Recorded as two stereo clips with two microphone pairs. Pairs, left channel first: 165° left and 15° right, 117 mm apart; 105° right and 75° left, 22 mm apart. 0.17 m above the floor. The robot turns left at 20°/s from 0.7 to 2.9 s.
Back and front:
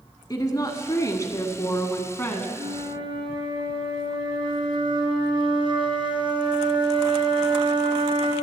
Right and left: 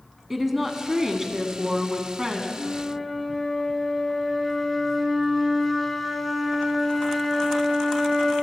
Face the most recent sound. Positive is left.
turn(degrees=-15)